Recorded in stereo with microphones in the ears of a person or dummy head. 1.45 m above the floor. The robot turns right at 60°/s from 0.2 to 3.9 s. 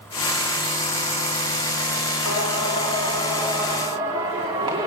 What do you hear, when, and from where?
2.2 s singing: 95° left, 2.5 m; by 4.9 s 165° right, 2.5 m